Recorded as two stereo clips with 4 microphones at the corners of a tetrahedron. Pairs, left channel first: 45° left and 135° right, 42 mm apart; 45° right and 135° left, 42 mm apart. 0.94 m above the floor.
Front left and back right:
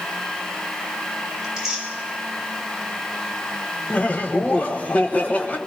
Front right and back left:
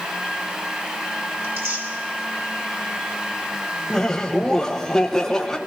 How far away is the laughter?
About 1.0 m.